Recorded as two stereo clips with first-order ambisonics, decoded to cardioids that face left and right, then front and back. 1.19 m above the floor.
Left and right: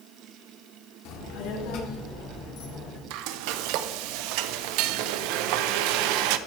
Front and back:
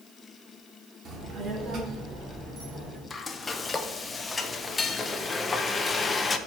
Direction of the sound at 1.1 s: 115° left.